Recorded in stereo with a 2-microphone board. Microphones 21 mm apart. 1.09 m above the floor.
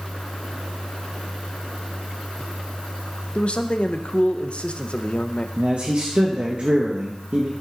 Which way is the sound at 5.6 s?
60° right (ahead or behind).